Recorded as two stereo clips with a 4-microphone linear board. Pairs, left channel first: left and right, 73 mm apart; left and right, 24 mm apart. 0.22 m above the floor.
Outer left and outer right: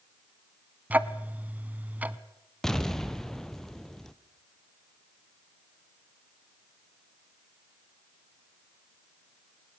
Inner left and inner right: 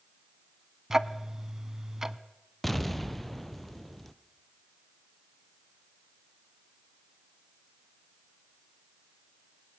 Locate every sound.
0.9 s ticking: 20° right (ahead or behind), 0.7 m
2.6 s an explosion: 5° left (ahead or behind), 0.9 m